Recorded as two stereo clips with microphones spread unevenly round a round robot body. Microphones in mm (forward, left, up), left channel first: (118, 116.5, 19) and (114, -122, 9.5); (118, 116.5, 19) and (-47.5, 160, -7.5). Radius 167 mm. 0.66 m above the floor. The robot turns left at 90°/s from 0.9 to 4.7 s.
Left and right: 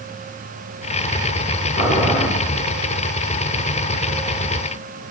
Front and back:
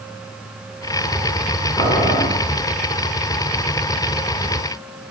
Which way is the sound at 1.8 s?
45° left.